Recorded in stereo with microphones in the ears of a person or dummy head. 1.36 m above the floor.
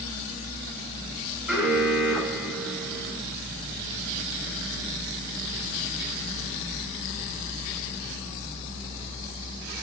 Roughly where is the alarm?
Centre.